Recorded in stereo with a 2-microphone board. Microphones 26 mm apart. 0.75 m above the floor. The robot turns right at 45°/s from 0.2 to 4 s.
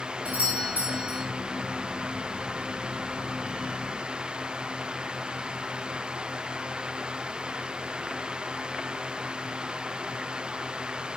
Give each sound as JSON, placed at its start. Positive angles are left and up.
{"t": 0.2, "sound": "a doorbell", "azimuth_deg": -125, "distance_m": 4.5}